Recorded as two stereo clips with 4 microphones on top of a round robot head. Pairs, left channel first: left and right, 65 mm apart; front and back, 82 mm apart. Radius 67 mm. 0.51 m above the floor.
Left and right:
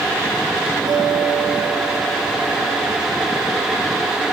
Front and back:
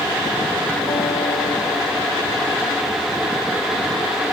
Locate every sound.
0.9 s a guitar: 80° right, 7 m